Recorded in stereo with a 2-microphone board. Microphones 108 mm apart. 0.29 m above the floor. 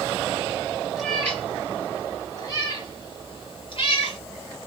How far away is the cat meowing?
About 1.2 m.